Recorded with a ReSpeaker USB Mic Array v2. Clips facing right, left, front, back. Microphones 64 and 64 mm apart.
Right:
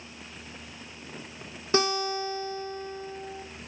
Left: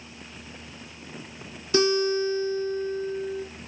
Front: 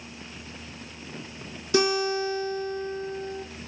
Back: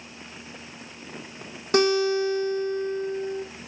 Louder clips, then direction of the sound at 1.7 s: Left 5 dB, back 3 dB; 140° right.